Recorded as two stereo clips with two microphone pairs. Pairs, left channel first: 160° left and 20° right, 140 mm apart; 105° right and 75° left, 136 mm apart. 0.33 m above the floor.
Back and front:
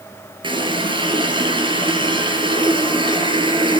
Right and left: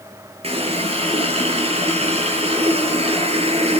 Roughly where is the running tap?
Ahead left.